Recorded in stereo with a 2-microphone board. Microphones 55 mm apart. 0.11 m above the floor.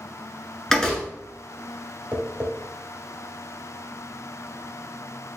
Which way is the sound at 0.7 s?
10° left (ahead or behind).